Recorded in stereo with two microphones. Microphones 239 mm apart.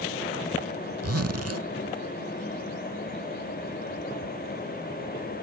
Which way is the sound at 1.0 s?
90° right.